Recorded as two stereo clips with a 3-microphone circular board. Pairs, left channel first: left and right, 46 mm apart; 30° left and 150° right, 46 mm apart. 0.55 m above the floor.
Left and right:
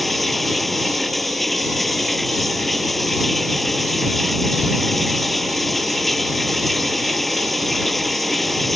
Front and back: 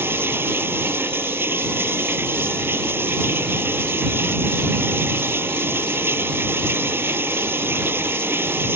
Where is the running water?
Straight behind.